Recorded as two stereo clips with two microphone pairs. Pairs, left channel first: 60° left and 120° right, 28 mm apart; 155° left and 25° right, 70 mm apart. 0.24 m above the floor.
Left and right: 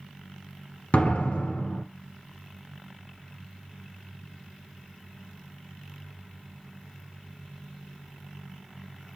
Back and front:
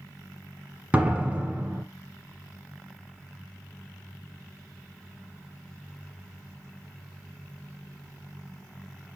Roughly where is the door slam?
Ahead left.